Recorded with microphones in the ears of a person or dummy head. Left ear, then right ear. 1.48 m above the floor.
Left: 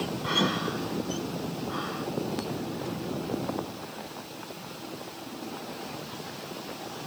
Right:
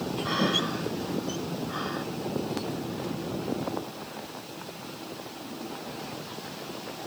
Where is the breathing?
20° left (ahead or behind), 8 m.